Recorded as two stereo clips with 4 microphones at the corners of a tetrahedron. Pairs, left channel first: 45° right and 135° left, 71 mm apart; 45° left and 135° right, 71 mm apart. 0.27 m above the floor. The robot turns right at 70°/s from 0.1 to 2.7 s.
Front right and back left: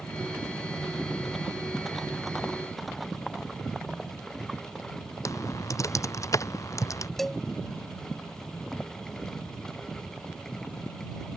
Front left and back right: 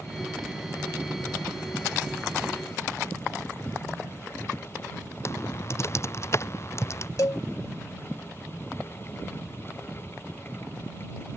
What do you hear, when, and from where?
5.2 s typing on a keyboard: 5° right
7.2 s a cowbell: 40° left